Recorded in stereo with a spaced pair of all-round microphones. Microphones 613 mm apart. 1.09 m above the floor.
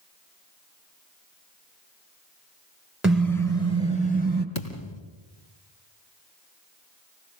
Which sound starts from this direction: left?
A thud, at 4.5 s.